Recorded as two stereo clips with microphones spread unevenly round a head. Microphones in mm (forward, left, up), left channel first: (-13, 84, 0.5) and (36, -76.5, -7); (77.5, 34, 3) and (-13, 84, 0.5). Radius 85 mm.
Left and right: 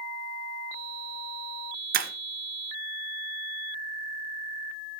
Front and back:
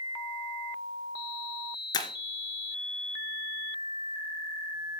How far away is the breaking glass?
About 2 m.